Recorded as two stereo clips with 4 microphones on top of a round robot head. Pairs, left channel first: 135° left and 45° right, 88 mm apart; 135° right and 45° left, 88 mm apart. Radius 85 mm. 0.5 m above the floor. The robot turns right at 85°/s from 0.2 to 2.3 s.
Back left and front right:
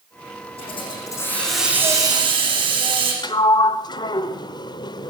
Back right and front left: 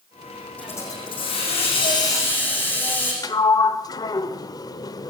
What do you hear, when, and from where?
0.6 s a hiss: 145° left, 6.5 m; by 3.1 s 65° right, 6.5 m
3.2 s a sliding door: 175° left, 0.7 m